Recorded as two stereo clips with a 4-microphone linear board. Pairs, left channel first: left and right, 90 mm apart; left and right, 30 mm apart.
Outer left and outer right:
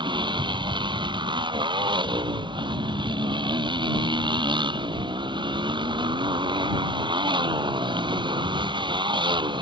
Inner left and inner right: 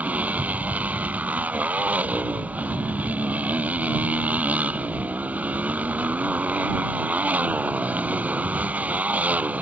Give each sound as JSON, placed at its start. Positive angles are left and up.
{"t": 0.0, "sound": "a motorcycle", "side_deg": -60}